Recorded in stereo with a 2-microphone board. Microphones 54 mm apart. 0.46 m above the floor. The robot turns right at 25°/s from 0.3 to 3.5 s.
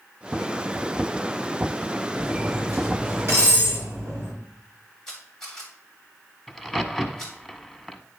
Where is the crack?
5° left (ahead or behind), 0.7 m.